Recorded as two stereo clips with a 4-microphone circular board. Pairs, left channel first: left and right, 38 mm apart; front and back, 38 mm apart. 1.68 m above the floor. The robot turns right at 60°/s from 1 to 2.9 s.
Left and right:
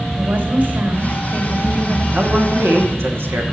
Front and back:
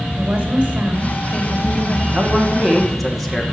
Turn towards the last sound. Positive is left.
turn(degrees=-85)